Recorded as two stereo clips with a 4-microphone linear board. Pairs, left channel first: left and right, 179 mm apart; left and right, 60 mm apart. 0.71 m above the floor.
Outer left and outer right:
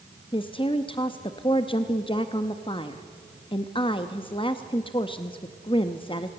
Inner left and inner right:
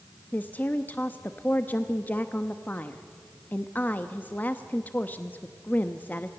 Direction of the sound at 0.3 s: 30° left (ahead or behind).